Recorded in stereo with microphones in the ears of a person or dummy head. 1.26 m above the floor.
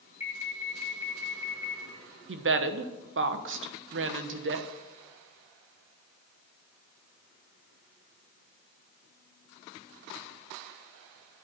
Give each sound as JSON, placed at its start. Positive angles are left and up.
{"t": 0.2, "sound": "an alarm", "side_deg": -5, "distance_m": 3.5}
{"t": 2.3, "sound": "a woman speaking", "side_deg": -65, "distance_m": 1.0}